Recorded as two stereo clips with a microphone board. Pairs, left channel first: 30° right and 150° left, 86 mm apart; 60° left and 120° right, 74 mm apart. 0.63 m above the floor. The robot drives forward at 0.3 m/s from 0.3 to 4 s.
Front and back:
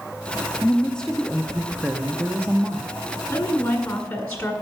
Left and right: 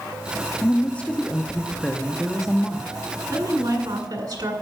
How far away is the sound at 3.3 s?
About 1.8 m.